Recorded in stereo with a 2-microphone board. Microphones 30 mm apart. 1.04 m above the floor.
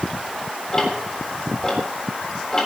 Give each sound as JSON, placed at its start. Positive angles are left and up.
{"t": 0.7, "sound": "ticking", "side_deg": 20, "distance_m": 3.5}